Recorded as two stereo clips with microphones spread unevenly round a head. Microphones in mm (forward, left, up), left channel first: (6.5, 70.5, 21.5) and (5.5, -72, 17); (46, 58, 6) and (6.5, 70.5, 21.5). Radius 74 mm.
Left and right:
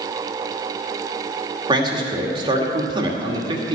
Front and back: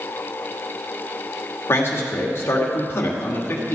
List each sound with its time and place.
1.7 s a man speaking: 30° right, 2 m